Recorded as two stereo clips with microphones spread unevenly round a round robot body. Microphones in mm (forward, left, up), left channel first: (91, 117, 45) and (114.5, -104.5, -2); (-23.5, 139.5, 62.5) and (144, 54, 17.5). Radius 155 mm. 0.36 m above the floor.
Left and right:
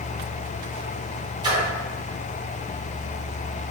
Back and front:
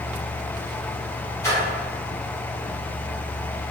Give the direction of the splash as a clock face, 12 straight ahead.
4 o'clock.